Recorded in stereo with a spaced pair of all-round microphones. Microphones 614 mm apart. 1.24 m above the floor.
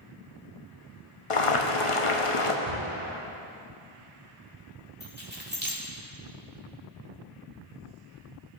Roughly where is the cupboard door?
Left.